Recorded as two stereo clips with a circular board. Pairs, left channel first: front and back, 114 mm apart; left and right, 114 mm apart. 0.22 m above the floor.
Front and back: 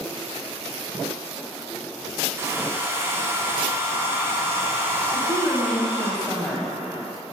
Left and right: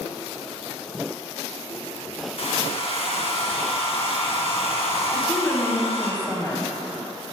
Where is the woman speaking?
75° left, 1.2 m.